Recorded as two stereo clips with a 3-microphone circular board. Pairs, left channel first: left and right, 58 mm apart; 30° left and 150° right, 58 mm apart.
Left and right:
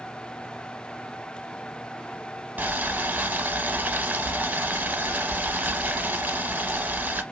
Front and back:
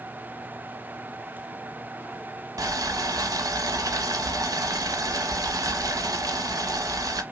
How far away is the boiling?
About 0.6 m.